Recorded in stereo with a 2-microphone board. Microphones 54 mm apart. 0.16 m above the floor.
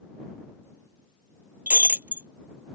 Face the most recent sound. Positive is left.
turn(degrees=-30)  # may be behind; listen again after turning